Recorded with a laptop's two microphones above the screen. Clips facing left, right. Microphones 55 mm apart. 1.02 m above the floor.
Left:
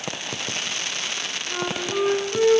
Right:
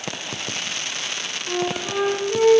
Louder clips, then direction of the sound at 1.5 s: Right 3 dB; 80° right.